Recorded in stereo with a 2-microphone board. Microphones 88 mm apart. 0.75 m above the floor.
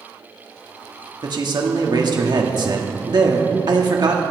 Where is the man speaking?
55° right (ahead or behind), 1.5 m.